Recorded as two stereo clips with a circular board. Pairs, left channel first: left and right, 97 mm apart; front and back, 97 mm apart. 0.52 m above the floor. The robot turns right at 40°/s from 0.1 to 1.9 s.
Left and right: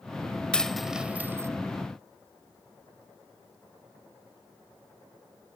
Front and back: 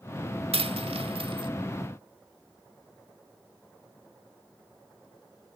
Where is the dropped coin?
170° left, 1.0 m; by 1.5 s 150° right, 1.0 m.